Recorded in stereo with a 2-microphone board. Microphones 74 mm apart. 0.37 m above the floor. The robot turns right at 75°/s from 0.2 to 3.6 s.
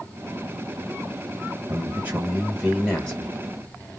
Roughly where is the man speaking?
Right.